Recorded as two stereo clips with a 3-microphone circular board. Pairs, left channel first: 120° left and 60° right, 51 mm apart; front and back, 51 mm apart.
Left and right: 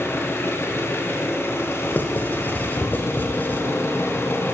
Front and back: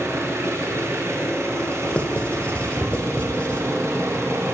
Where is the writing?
65° left, 1.5 m.